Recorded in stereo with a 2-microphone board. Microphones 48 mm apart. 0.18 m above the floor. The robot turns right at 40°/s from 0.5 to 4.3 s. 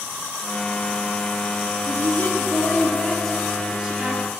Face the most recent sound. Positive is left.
turn(degrees=-145)